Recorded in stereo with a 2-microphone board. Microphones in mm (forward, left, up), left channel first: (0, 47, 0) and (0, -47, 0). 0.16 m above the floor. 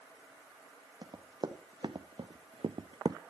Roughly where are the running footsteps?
Right.